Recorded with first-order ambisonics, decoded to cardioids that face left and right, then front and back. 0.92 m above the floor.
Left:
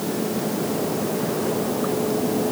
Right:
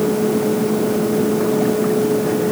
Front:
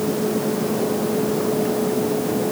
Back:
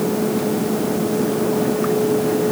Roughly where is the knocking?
I don't hear knocking.